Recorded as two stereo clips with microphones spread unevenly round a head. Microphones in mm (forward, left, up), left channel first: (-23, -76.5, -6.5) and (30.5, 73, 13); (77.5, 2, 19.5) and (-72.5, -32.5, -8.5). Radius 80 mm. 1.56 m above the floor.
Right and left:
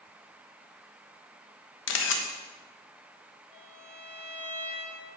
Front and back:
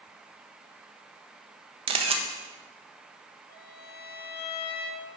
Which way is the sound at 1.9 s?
110° right.